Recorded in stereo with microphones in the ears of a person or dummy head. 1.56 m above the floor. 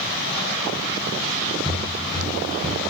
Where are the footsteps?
20° right (ahead or behind), 1.6 m; by 2.8 s 45° right (ahead or behind), 2 m.